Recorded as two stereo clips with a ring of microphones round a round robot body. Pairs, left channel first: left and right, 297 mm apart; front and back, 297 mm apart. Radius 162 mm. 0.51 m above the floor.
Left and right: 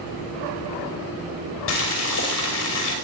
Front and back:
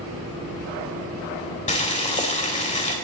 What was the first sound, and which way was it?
Boiling, 65° left.